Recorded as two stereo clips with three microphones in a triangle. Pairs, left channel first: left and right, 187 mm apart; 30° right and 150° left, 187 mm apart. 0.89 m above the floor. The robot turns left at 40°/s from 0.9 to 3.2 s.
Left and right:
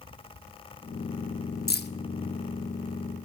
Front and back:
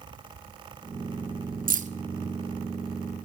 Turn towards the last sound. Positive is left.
turn(degrees=55)